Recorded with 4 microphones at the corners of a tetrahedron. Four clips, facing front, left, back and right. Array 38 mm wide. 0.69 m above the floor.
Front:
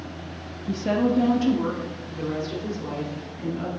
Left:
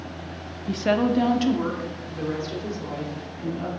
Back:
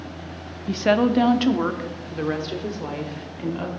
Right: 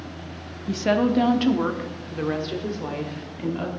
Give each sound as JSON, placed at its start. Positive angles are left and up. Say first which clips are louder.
{"t": 0.7, "sound": "a woman speaking", "louder": "right 1 dB, back 4 dB", "azimuth_deg": 160, "distance_m": 0.8}